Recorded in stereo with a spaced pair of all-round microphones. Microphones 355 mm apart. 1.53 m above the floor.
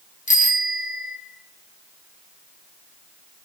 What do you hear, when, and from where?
0.3 s a bicycle bell: 20° left (ahead or behind), 2.5 m